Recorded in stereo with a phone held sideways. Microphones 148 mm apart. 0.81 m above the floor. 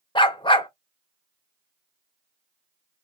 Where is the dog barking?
35° left (ahead or behind), 0.6 m.